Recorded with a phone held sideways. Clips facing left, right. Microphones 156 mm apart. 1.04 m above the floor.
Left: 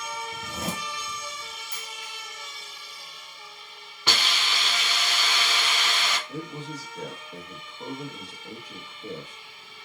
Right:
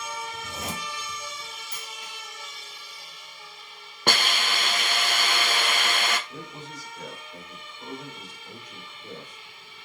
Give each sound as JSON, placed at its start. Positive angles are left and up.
{"t": 0.3, "sound": "a zipper", "side_deg": 65, "distance_m": 2.5}
{"t": 1.7, "sound": "a dropped coin", "side_deg": -65, "distance_m": 1.5}
{"t": 4.1, "sound": "a hiss", "side_deg": -50, "distance_m": 0.5}
{"t": 6.3, "sound": "a man speaking", "side_deg": 75, "distance_m": 1.4}